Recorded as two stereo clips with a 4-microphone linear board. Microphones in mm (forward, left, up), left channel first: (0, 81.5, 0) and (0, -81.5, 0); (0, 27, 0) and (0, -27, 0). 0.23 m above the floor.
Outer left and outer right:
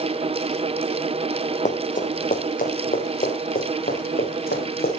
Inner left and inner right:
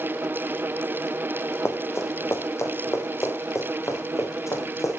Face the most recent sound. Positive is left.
turn(degrees=65)  # may be behind; listen again after turning